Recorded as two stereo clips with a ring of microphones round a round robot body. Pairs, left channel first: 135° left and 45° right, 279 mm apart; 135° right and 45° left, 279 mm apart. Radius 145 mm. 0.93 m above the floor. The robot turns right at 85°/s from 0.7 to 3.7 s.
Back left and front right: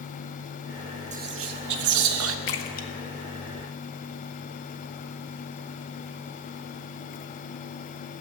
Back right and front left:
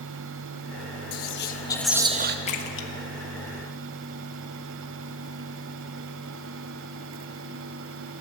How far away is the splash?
About 1.3 m.